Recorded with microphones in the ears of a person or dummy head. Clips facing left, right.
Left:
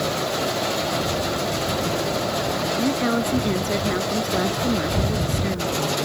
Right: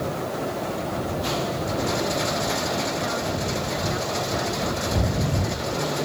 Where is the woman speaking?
50° left (ahead or behind).